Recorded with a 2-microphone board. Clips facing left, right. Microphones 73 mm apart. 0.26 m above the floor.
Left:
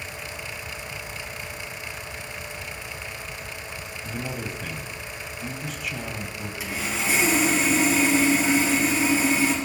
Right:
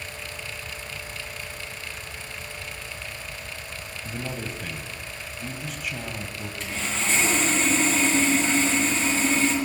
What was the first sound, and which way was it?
A man speaking, centre (ahead or behind).